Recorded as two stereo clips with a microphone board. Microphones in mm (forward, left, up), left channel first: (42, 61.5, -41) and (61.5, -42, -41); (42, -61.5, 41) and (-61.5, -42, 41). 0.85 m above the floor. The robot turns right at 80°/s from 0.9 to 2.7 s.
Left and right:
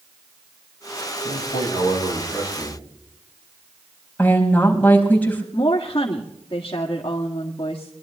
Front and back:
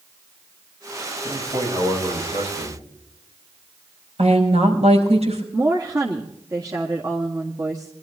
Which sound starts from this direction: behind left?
A woman speaking, at 5.5 s.